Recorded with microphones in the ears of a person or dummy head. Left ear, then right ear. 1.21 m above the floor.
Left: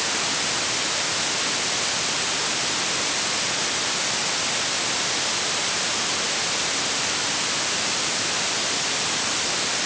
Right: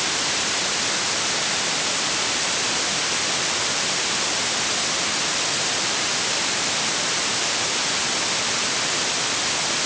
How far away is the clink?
No clink in this recording.